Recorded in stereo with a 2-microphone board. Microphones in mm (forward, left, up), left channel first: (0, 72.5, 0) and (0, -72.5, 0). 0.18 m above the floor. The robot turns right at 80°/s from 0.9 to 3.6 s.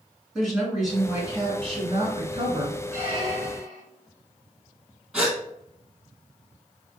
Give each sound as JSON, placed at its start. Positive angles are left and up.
{"t": 0.3, "sound": "a woman speaking", "azimuth_deg": 180, "distance_m": 2.0}
{"t": 2.9, "sound": "a squeak", "azimuth_deg": -25, "distance_m": 2.0}
{"t": 5.1, "sound": "a gasp", "side_deg": 0, "distance_m": 1.8}